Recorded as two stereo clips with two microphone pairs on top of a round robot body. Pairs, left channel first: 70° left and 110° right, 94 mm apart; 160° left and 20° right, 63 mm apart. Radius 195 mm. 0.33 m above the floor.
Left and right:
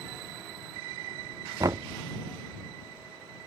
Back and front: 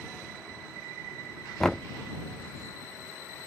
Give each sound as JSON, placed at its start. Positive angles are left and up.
{"t": 1.6, "sound": "knocking", "azimuth_deg": -135}